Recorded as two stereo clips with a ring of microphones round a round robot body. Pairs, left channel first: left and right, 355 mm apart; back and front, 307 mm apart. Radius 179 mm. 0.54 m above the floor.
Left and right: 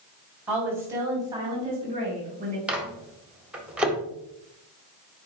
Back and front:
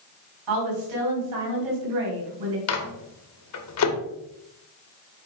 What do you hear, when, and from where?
0.5 s a woman speaking: 5° right, 4 m; by 2.6 s 25° right, 4 m
2.7 s a microwave: 175° right, 1.5 m